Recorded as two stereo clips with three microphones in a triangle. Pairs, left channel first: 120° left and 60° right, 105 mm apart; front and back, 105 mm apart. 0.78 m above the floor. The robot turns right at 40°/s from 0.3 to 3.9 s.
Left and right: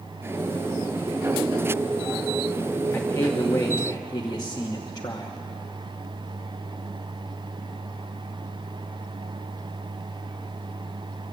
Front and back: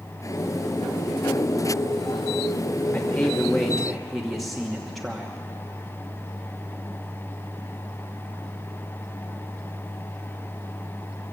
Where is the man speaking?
55° left, 1.2 m; by 5.3 s 90° left, 1.2 m.